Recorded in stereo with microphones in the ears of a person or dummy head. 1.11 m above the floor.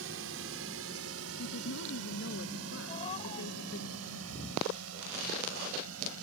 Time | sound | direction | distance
0.0 | a drone | 65° right (ahead or behind) | ?
1.4 | a woman speaking | 65° left (ahead or behind) | ?
2.9 | a cat meowing | 30° left (ahead or behind) | ?